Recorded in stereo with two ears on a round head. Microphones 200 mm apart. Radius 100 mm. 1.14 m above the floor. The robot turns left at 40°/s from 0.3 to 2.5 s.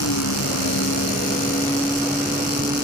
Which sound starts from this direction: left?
A vehicle, at 0.0 s.